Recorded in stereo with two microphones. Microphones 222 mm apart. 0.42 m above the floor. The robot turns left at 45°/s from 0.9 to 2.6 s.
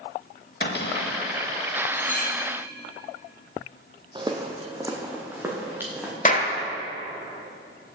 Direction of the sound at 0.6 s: 50° left (ahead or behind).